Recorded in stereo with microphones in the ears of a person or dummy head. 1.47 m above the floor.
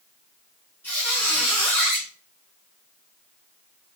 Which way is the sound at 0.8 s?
5° left (ahead or behind).